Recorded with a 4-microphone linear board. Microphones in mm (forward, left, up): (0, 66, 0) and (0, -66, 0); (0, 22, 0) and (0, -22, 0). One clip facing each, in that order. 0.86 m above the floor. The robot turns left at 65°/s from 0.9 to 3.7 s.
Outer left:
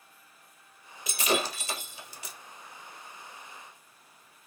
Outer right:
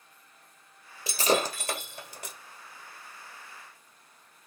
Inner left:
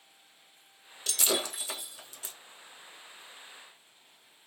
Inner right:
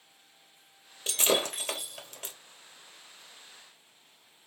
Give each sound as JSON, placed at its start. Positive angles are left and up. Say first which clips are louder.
{"t": 1.1, "sound": "breaking glass", "louder": "outer right 3 dB, inner right 4 dB", "side_deg": -30, "distance_m": 1.5}